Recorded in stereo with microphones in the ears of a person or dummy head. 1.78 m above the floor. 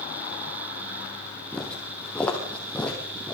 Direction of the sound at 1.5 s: 10° left (ahead or behind).